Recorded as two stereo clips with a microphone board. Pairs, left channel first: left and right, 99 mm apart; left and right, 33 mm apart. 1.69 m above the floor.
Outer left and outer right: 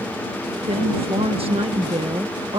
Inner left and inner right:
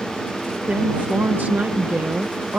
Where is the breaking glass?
No breaking glass in this recording.